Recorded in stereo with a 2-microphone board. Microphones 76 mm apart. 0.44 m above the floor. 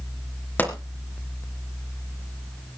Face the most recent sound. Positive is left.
turn(degrees=20)  # may be behind; listen again after turning